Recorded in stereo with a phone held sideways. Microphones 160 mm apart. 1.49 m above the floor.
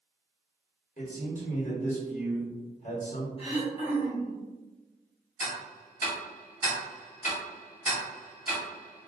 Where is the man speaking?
50° left (ahead or behind), 1.1 m.